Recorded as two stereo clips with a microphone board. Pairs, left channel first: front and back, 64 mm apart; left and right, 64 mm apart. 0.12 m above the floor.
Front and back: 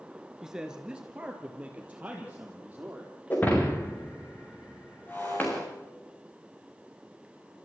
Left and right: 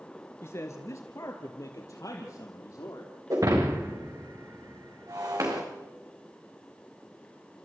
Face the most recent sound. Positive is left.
turn(degrees=-65)